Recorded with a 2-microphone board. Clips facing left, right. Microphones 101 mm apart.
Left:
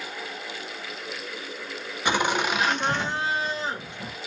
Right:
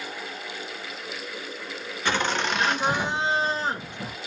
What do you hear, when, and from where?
2.0 s laughter: 15° left (ahead or behind), 1.0 m; by 4.1 s 55° right (ahead or behind), 0.8 m